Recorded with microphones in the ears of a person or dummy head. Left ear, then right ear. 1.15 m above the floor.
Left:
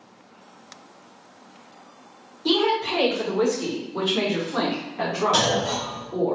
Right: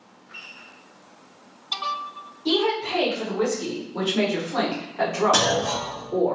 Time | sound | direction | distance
2.5 | a woman speaking | 40° left (ahead or behind) | 1.6 m
5.3 | a clunk | 30° right (ahead or behind) | 1.0 m